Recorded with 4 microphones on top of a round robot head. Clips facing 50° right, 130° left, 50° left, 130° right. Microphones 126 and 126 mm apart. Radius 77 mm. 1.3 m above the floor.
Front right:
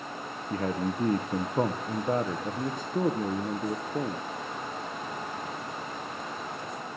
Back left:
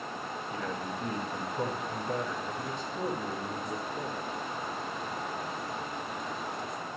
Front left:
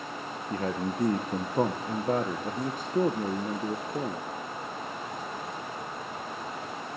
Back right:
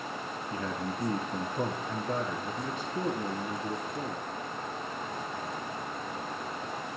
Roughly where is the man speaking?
Ahead.